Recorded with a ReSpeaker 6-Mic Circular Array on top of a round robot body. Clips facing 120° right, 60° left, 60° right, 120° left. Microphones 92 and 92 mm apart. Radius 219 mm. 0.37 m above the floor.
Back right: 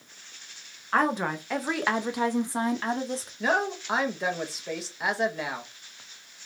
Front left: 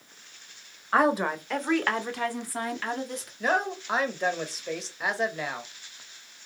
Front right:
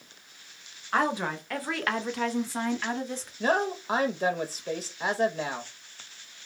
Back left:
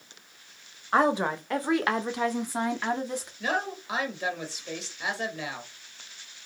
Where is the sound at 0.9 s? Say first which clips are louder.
Front left 2 dB, back left 4 dB; 120° left, 1.4 m; by 3.3 s 165° right, 1.8 m.